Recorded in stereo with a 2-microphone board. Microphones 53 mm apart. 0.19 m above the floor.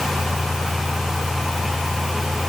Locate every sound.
Only background noise.